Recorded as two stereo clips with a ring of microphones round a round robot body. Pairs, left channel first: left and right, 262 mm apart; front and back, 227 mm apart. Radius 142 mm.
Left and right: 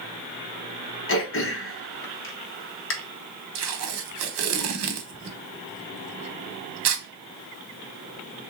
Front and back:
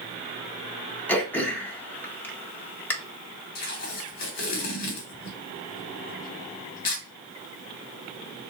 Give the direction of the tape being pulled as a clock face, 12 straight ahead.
2 o'clock.